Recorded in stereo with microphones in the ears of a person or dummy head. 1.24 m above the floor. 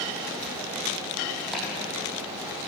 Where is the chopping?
5° left (ahead or behind), 9 m.